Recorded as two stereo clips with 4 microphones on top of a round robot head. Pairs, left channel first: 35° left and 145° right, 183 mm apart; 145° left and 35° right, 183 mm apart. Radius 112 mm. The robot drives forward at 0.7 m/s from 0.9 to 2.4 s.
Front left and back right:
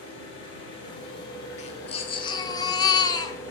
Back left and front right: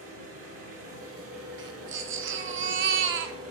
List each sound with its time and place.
0.0 s an engine running: 30° right, 3.5 m; by 3.5 s 40° right, 3 m
1.6 s a baby crying: 20° right, 1.2 m; by 3.4 s 35° right, 0.7 m